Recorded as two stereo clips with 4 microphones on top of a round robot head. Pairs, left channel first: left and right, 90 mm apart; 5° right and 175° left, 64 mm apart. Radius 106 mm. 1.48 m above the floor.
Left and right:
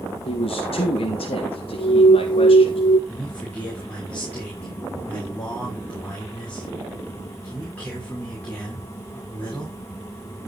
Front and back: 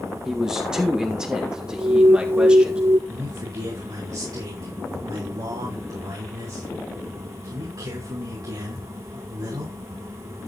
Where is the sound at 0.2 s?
95° left, 2 m; by 2.8 s 105° left, 4 m.